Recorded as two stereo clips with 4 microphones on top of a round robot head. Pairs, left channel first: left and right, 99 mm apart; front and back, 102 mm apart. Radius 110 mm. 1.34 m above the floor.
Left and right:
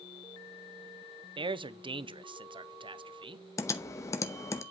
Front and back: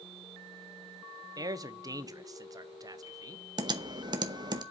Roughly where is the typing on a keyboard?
Behind left.